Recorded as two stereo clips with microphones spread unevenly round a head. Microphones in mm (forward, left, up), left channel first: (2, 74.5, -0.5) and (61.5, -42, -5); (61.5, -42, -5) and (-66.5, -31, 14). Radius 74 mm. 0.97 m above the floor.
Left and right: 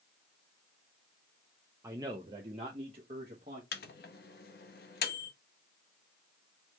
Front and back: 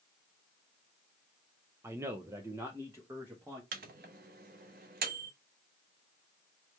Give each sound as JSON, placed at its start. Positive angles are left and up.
{"t": 1.8, "sound": "a man speaking", "azimuth_deg": -115, "distance_m": 0.5}
{"t": 3.7, "sound": "a microwave", "azimuth_deg": 140, "distance_m": 0.8}